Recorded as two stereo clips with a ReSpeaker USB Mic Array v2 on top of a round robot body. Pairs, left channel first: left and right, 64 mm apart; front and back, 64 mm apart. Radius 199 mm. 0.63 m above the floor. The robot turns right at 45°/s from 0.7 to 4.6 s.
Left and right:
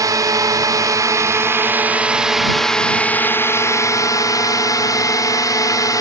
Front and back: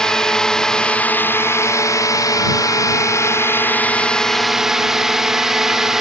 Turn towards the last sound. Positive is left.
turn(degrees=95)